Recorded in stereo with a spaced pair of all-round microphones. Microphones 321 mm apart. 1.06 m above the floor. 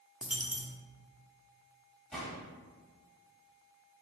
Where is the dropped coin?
5° right (ahead or behind), 0.6 m.